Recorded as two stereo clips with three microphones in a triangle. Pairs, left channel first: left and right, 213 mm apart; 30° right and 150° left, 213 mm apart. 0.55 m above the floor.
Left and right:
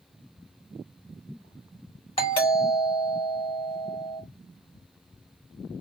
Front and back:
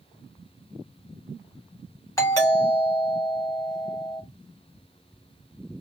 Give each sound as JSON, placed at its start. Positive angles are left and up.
{"t": 2.2, "sound": "a doorbell", "azimuth_deg": 40, "distance_m": 1.9}